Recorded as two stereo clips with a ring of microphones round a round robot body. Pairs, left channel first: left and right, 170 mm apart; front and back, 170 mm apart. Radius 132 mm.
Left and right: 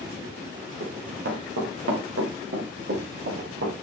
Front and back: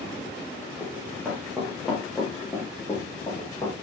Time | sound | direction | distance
0.8 | running footsteps | 95° right | 3.5 m